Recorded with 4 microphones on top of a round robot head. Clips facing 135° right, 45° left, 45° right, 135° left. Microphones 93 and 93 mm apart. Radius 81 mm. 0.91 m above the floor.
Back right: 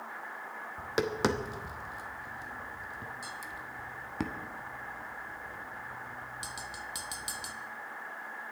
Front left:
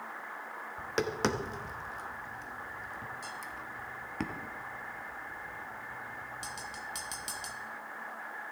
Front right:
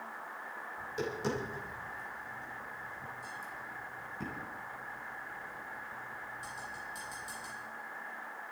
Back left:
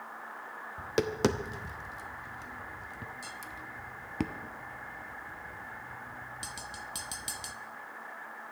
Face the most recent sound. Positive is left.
turn(degrees=145)